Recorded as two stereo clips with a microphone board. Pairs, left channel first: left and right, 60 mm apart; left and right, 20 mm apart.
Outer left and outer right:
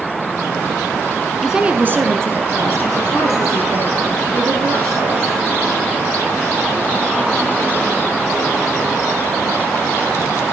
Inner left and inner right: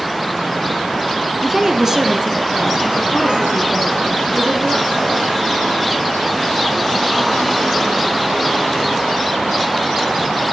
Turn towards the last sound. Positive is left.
turn(degrees=-70)  # may be behind; listen again after turning